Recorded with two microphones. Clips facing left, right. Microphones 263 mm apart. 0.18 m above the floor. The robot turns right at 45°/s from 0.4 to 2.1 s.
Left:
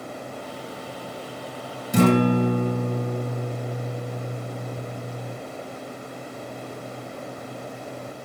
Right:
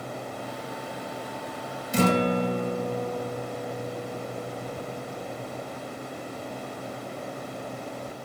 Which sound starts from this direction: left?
A guitar, at 1.9 s.